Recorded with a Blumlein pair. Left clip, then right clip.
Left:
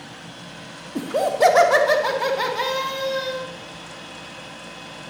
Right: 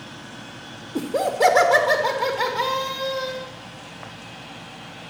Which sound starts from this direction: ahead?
Laughter, at 0.9 s.